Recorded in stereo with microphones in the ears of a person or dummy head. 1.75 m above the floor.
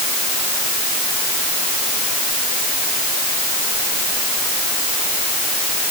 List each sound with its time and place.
Only background noise.